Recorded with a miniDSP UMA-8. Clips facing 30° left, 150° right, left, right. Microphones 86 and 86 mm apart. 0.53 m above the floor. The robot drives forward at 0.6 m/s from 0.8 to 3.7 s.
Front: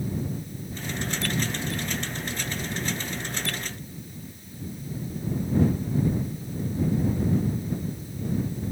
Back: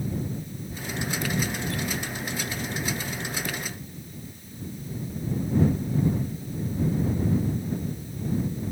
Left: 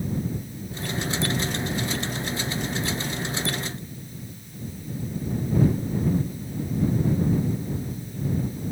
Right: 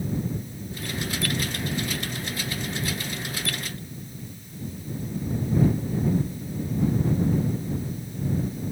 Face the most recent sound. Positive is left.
No sound to turn to.